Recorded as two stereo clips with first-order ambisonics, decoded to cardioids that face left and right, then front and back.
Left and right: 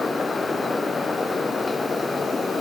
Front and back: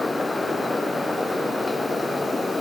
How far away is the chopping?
No chopping in this recording.